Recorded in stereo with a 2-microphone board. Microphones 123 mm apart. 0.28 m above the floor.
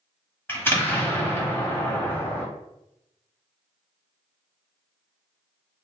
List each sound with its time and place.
0.5 s an explosion: 20° left (ahead or behind), 1.2 m